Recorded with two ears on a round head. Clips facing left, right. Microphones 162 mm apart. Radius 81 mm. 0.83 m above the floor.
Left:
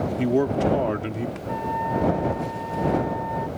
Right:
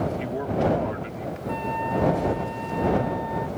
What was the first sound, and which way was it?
A man speaking, 55° left (ahead or behind).